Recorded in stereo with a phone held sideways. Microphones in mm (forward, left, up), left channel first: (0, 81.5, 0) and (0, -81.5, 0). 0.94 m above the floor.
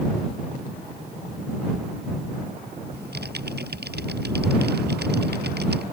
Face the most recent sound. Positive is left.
turn(degrees=-90)